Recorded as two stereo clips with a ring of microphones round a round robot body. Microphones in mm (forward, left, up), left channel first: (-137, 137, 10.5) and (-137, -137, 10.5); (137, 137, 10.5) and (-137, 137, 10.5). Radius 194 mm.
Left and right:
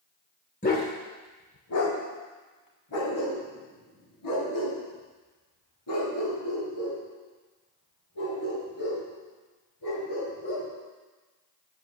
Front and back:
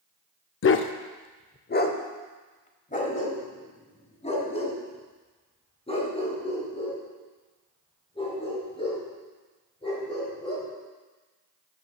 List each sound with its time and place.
0.6 s a dog barking: 30° left, 0.5 m; by 10.7 s 70° left, 5.5 m